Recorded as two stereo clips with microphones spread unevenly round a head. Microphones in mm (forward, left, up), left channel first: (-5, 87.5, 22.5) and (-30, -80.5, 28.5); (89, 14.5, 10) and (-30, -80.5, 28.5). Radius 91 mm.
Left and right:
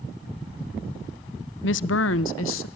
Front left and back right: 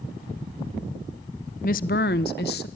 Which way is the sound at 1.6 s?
85° left.